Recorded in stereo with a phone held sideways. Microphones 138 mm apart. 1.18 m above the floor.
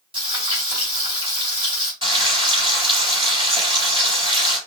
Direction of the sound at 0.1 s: 35° right (ahead or behind).